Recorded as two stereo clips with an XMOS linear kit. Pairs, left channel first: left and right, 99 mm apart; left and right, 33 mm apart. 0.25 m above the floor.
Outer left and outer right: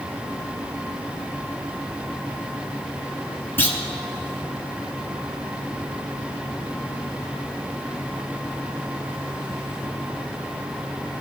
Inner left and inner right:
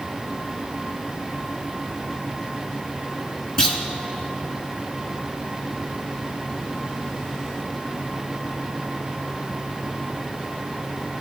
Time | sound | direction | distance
3.6 | a clunk | 25° left (ahead or behind) | 1.1 m